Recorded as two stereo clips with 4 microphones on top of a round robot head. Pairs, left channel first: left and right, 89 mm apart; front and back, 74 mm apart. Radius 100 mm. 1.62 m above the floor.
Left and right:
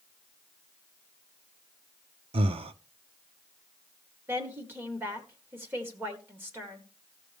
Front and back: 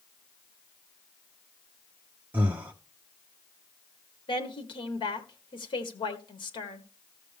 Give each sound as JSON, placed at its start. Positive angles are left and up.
{"t": 2.3, "sound": "breathing", "azimuth_deg": -110, "distance_m": 0.7}
{"t": 4.3, "sound": "a woman speaking", "azimuth_deg": -20, "distance_m": 1.6}